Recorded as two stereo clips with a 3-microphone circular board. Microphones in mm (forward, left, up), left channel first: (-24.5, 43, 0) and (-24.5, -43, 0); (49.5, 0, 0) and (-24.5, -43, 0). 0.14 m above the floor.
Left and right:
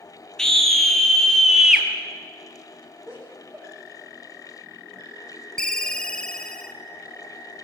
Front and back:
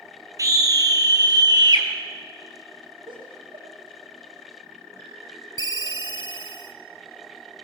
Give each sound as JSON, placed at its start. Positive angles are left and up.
{"t": 0.4, "sound": "a scream", "azimuth_deg": 175, "distance_m": 2.5}
{"t": 3.1, "sound": "laughter", "azimuth_deg": -175, "distance_m": 6.5}
{"t": 5.6, "sound": "a ringtone", "azimuth_deg": 10, "distance_m": 1.0}